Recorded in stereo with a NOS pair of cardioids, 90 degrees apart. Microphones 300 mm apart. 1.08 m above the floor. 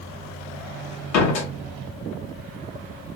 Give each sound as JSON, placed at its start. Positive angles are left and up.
{"t": 1.1, "sound": "a door slam", "azimuth_deg": 70, "distance_m": 1.3}